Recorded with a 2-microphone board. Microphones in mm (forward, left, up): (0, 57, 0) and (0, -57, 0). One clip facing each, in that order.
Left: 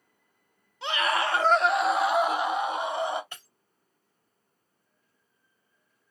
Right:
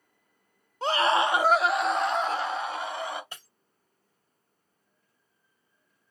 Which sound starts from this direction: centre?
Breaking glass, at 3.3 s.